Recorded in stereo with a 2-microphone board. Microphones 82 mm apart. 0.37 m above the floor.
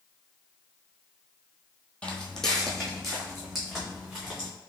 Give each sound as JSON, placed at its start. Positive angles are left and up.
{"t": 2.0, "sound": "footsteps", "side_deg": 15, "distance_m": 0.7}